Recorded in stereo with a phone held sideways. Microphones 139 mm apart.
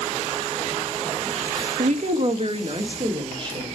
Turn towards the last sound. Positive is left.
turn(degrees=-35)  # may be behind; listen again after turning